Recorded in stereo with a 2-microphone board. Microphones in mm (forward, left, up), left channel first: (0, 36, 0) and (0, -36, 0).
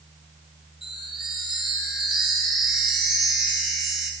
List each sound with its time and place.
0.8 s a chime: 5° right (ahead or behind), 3 m